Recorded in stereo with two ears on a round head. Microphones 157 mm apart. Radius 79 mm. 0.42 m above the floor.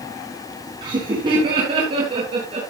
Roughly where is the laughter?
Right.